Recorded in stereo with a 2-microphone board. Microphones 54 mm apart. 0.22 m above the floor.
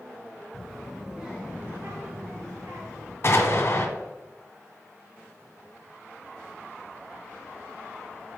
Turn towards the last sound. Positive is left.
turn(degrees=50)  # may be behind; listen again after turning